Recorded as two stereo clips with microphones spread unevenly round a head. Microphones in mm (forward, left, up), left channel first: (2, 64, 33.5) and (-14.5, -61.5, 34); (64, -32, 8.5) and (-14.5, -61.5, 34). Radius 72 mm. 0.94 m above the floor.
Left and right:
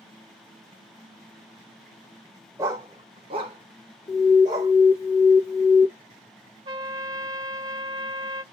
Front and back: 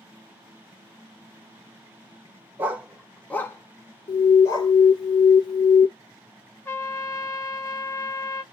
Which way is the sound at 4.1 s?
20° left.